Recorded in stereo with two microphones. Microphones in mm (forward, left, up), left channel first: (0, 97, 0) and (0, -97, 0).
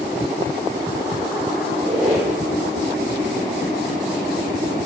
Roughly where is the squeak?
Centre.